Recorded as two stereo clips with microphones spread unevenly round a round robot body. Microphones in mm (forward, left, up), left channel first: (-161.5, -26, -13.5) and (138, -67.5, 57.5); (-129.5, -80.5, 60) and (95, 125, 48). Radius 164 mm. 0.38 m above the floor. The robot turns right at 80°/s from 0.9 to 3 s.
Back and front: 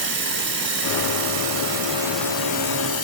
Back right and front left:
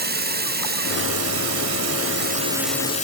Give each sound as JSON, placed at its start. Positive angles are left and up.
{"t": 0.0, "sound": "running water", "azimuth_deg": -10, "distance_m": 2.0}